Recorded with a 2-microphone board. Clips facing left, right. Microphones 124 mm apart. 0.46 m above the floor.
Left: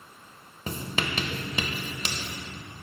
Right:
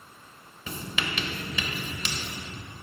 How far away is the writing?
About 0.6 m.